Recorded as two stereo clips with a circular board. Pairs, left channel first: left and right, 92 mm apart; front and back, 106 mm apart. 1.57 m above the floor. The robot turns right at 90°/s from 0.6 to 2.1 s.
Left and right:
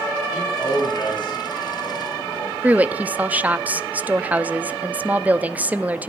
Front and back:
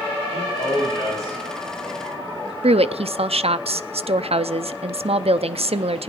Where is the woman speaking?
165° right, 0.6 m.